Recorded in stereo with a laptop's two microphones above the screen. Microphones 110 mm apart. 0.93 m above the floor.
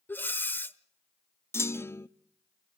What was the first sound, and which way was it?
Breathing, 15° left (ahead or behind).